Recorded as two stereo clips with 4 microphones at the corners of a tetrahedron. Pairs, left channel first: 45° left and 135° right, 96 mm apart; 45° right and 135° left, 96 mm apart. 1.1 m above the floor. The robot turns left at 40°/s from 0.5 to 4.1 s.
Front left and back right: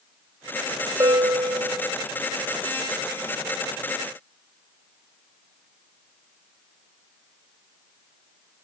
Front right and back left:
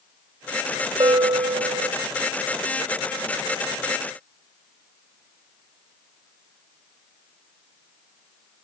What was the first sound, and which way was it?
A bell, straight behind.